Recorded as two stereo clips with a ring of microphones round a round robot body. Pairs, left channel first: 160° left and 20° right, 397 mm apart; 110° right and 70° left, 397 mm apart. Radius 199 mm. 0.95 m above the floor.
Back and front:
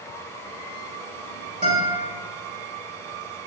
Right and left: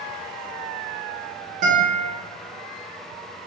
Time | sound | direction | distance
1.6 | a guitar | 40° left | 0.9 m